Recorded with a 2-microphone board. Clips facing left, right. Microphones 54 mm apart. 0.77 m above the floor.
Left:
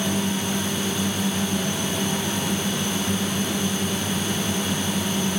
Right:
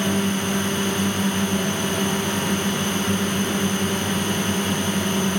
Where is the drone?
45° right (ahead or behind).